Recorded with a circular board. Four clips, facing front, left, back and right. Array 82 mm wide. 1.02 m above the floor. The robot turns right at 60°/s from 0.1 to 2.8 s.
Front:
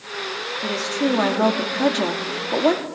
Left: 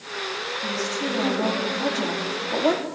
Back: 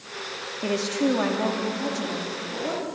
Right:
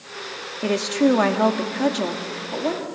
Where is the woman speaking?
110° right, 2 m; by 2.9 s 25° left, 2 m.